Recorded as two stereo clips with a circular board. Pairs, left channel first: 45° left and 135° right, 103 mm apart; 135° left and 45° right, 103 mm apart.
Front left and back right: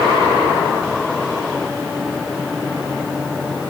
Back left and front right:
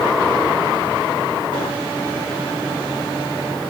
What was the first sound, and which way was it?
Only background noise.